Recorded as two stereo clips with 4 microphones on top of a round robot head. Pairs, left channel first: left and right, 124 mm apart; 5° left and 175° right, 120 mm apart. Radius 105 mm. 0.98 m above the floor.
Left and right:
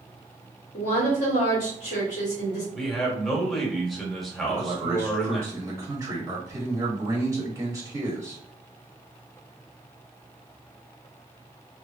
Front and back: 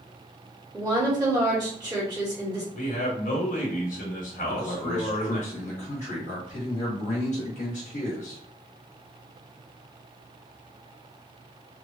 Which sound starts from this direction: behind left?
A woman speaking, at 0.7 s.